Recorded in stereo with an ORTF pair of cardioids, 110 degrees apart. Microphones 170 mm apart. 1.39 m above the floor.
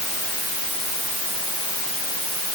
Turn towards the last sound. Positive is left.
No sound to turn to.